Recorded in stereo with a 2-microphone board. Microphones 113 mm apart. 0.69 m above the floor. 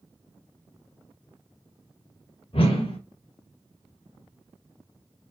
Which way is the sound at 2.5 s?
65° left (ahead or behind).